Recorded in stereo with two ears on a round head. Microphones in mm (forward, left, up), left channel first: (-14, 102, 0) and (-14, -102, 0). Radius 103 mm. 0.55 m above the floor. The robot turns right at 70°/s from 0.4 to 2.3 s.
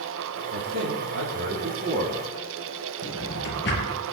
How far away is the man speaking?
About 5.5 m.